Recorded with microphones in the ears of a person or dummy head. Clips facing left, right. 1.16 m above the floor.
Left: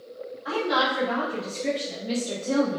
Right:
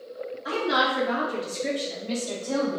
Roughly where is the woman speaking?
Right.